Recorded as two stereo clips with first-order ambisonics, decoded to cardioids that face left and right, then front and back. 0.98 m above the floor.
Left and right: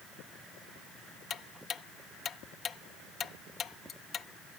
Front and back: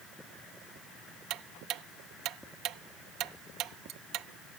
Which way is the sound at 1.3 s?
150° left.